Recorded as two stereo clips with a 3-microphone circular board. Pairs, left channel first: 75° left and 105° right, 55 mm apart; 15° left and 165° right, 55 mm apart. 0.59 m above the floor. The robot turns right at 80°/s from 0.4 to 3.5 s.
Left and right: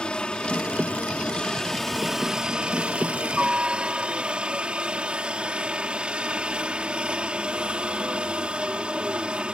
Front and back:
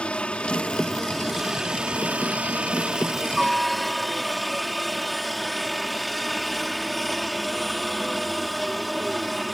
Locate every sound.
0.0 s a helicopter: 35° left; by 9.6 s 75° right